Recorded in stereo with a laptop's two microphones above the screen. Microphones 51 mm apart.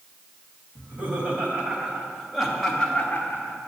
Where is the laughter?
40° right (ahead or behind), 1.8 m; by 3.6 s 40° left (ahead or behind), 1.1 m.